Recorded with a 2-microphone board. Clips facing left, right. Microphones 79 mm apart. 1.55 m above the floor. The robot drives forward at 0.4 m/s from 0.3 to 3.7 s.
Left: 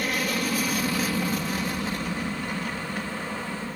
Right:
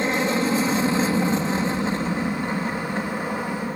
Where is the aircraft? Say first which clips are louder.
Right 6 dB; 25° right (ahead or behind); by 3.8 s 30° right (ahead or behind).